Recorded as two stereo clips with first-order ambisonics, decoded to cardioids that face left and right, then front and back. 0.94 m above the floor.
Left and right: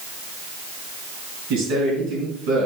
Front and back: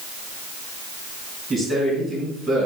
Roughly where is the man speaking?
Right.